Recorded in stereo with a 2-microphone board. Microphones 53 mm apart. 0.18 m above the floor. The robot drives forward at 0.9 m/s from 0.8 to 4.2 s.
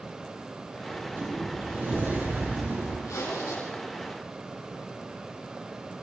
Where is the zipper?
75° left (ahead or behind), 7 m.